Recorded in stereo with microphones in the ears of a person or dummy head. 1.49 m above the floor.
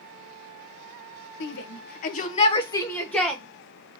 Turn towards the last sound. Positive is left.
turn(degrees=5)  # may be behind; listen again after turning